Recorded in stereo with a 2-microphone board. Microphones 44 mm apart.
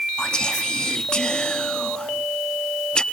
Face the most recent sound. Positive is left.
turn(degrees=20)  # may be behind; listen again after turning